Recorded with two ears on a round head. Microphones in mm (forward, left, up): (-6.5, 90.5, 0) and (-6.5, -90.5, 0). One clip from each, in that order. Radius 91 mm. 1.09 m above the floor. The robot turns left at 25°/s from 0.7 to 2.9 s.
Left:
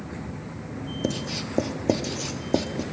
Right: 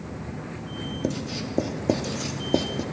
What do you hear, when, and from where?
1.0 s writing: 15° left (ahead or behind), 0.5 m; by 2.8 s centre (ahead or behind), 0.5 m